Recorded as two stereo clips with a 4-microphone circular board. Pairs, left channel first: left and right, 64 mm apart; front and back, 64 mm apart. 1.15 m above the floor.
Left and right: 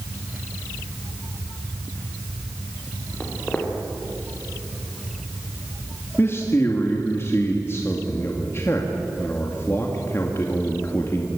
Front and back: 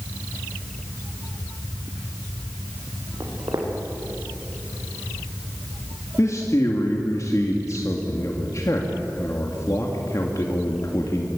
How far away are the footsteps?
About 5 m.